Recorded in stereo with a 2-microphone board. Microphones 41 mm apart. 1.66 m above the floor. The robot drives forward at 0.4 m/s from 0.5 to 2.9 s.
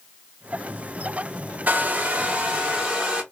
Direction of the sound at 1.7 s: 40° right (ahead or behind).